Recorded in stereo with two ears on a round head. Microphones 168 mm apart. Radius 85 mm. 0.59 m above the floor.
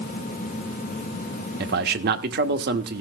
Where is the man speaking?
60° right (ahead or behind), 1.3 m.